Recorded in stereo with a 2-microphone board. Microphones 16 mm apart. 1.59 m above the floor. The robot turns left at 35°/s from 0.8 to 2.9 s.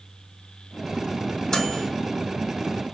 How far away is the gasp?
I don't hear a gasp.